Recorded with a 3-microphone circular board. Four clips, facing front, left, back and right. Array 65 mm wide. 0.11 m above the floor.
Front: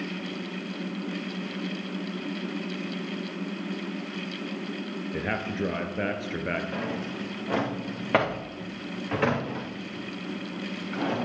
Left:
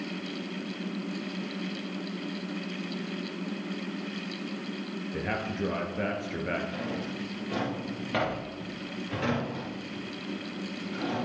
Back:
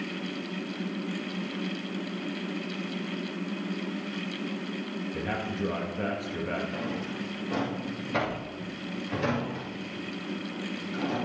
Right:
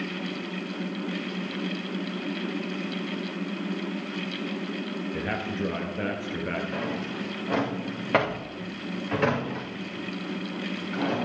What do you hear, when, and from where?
5.1 s a man speaking: 5° right, 2.5 m
6.7 s a drawer: 40° right, 4 m